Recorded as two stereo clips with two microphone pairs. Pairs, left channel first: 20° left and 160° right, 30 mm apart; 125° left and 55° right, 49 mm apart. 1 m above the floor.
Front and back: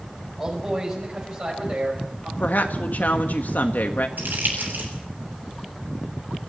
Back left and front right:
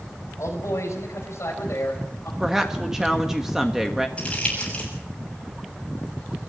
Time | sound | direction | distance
0.4 | a man speaking | 135° left | 5.5 m
2.4 | a woman speaking | 25° left | 1.5 m
4.2 | crumpling | 170° right | 7 m